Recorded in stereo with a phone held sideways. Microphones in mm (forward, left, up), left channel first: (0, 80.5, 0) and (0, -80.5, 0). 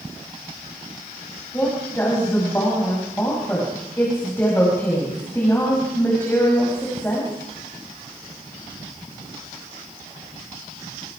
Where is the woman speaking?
15° left (ahead or behind), 5.5 m.